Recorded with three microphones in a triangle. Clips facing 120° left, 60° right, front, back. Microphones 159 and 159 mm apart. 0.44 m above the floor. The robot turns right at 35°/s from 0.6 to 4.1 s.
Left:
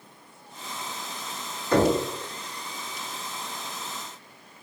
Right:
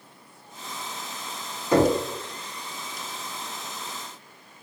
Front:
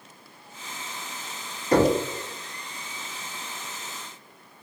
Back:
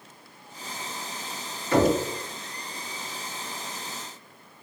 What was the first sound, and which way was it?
Knocking, 10° left.